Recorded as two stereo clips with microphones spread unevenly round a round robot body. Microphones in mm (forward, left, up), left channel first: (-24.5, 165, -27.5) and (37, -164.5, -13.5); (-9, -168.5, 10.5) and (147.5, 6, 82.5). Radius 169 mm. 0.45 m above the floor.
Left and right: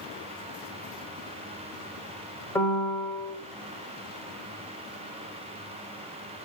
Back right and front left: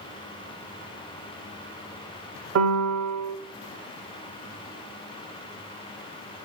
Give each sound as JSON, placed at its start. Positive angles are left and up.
{"t": 2.5, "sound": "a piano", "azimuth_deg": 20, "distance_m": 0.6}